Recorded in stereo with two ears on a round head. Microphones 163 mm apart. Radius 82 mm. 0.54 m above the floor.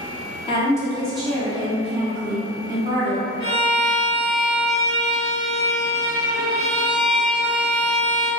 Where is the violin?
30° left (ahead or behind), 1.9 m.